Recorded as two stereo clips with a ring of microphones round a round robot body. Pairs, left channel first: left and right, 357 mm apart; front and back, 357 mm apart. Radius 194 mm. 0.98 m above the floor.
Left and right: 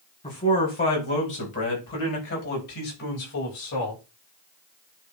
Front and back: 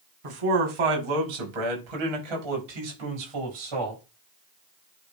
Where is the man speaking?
165° left, 3 m; by 4.0 s 140° left, 5 m.